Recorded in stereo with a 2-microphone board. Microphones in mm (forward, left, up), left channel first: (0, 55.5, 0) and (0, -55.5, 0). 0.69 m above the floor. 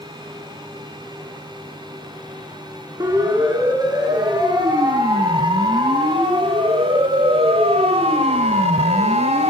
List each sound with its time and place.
3.0 s a siren: 35° right (ahead or behind), 9 m; by 9.5 s 70° right (ahead or behind), 3 m